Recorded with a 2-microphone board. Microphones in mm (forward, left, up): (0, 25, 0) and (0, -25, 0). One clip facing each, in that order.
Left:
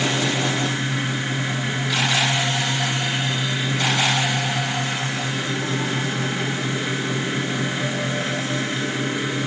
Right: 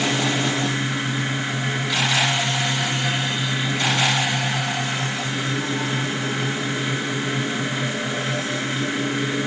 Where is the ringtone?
I don't hear a ringtone.